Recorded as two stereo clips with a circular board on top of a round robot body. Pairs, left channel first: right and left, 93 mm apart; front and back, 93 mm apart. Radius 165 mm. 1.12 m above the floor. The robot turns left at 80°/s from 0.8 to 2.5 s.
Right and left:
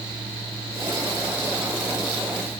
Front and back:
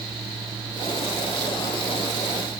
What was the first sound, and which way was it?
Only background noise.